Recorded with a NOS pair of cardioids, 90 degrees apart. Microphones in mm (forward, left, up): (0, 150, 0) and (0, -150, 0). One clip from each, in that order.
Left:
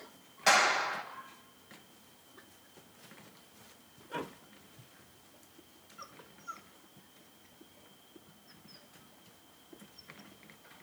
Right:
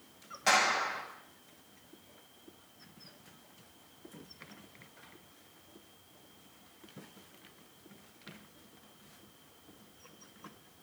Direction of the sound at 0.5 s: 25° left.